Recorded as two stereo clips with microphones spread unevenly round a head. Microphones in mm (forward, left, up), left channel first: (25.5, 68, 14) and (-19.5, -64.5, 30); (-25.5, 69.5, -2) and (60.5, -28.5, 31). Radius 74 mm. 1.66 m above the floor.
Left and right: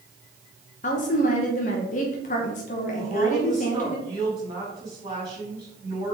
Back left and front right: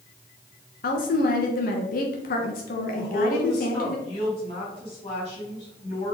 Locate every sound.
0.8 s a woman speaking: 110° left, 1.3 m
3.0 s a woman speaking: 175° right, 4.5 m